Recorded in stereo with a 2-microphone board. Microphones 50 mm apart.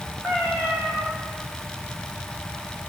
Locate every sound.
0.2 s a cat meowing: 30° right (ahead or behind), 8 m